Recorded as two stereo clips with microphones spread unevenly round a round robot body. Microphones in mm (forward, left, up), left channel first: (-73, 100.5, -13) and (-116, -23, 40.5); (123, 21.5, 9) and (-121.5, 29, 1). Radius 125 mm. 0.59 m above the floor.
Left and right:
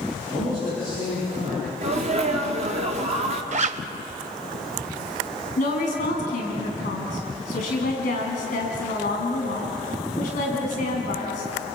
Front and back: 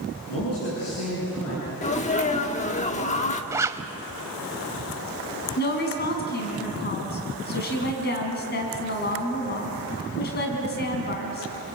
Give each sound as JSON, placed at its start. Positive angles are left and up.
{"t": 0.3, "sound": "a man speaking", "azimuth_deg": 20, "distance_m": 9.0}
{"t": 1.8, "sound": "a sneeze", "azimuth_deg": -55, "distance_m": 1.5}
{"t": 3.5, "sound": "a zipper", "azimuth_deg": -105, "distance_m": 0.7}
{"t": 5.6, "sound": "a woman speaking", "azimuth_deg": 45, "distance_m": 4.5}